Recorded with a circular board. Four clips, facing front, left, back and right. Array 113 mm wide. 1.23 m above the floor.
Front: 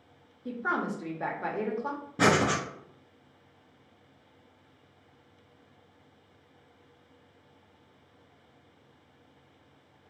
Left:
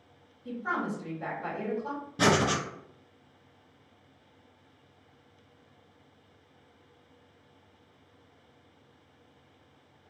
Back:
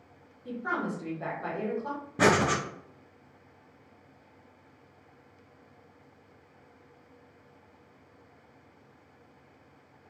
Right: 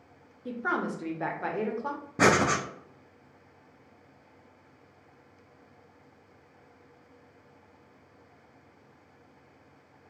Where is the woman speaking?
65° right, 0.7 m.